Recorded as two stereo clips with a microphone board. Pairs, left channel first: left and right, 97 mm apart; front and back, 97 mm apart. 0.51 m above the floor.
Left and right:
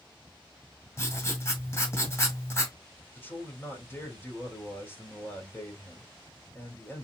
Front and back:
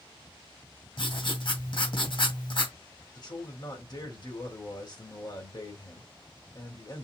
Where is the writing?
30° left, 1.9 m.